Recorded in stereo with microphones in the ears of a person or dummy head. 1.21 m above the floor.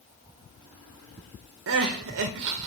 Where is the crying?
60° right (ahead or behind), 0.6 m.